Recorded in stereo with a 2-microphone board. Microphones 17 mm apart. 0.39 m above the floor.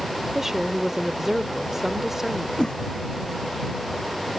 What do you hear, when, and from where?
0.3 s a woman speaking: 20° right (ahead or behind)
2.6 s a whoosh: 55° left (ahead or behind)